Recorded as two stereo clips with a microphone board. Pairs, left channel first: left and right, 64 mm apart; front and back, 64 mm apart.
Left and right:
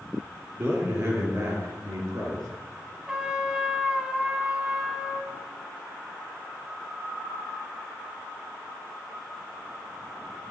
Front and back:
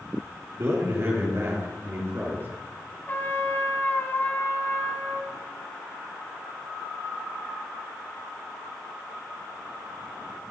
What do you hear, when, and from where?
0.6 s a man speaking: 145° right, 4.5 m; by 2.5 s 120° right, 3 m
3.1 s a trumpet: 25° right, 1.3 m